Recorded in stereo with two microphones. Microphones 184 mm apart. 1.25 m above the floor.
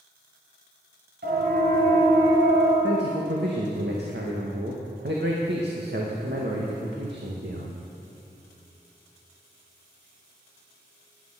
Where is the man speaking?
70° right (ahead or behind), 1.7 m.